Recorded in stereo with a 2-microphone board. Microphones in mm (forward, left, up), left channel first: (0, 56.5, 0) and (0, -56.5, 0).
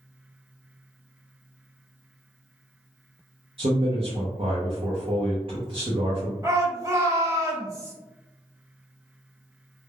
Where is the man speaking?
50° right (ahead or behind), 0.6 m.